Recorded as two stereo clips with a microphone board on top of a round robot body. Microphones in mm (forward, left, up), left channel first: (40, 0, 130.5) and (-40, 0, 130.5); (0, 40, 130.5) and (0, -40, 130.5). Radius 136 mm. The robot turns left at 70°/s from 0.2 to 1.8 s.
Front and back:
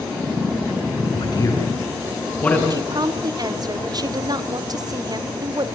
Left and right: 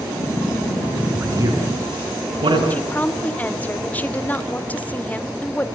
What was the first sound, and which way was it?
A man speaking, 20° right.